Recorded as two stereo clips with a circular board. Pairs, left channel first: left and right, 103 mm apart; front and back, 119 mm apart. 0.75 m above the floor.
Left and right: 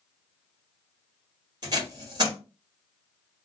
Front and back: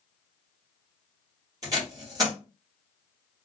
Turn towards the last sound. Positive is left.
turn(degrees=-125)